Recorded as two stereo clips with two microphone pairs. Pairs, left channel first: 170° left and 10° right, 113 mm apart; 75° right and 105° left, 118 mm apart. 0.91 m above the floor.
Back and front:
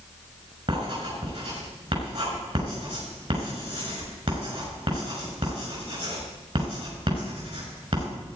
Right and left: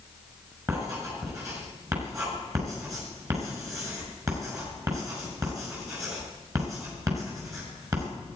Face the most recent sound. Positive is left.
turn(degrees=40)